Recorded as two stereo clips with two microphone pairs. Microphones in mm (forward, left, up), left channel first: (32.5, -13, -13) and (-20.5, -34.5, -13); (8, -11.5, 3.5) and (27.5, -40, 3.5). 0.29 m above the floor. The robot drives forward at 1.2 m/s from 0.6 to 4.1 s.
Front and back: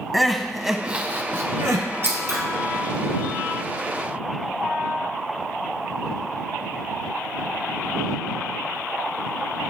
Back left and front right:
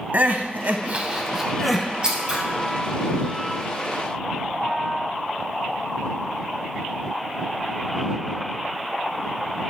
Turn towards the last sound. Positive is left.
turn(degrees=-145)